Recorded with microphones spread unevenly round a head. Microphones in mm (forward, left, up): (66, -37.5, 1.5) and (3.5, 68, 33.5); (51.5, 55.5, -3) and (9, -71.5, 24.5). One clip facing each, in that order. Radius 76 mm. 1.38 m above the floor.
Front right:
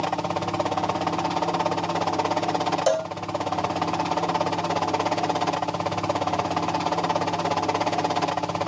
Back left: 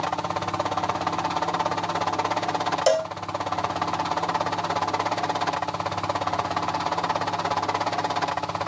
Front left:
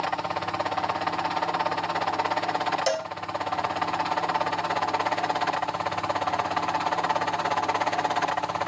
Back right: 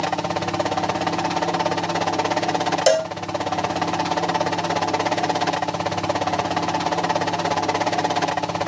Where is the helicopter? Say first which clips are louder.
Front right 1 dB, back right 5 dB; 115° right; by 8.7 s 90° right.